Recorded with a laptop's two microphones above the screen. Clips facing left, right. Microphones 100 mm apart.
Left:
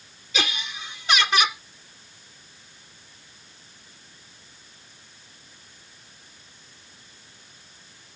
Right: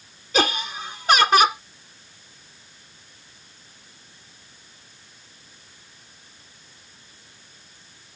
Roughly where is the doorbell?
No doorbell in this recording.